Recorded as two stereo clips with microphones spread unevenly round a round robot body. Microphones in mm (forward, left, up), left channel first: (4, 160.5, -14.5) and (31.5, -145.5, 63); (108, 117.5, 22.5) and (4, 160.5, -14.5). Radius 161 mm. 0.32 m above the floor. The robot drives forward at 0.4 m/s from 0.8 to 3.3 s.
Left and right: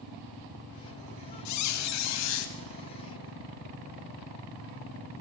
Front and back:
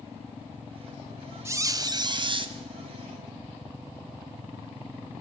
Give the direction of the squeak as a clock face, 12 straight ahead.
9 o'clock.